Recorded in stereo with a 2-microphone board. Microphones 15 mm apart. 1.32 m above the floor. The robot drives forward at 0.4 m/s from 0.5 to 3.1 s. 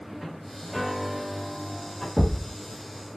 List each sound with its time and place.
0.7 s a piano: 10° left (ahead or behind), 0.6 m; by 2.1 s 5° left (ahead or behind), 1.2 m
2.2 s a thud: 45° right (ahead or behind), 1.7 m; by 2.5 s 40° right (ahead or behind), 1.8 m